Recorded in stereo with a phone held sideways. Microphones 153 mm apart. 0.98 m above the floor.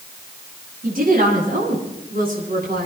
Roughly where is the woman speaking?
Right.